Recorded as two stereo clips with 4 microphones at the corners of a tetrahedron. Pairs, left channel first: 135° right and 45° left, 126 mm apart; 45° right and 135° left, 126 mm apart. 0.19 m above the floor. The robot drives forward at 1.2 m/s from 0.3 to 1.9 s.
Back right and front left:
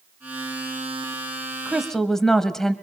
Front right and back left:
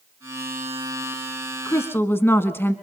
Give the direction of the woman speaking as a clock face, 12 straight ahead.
1 o'clock.